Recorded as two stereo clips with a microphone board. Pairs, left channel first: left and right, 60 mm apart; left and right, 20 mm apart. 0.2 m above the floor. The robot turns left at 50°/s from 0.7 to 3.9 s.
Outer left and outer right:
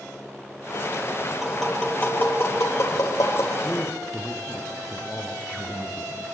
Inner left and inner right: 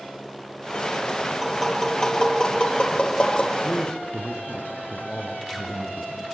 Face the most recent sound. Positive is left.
turn(degrees=10)  # may be behind; listen again after turning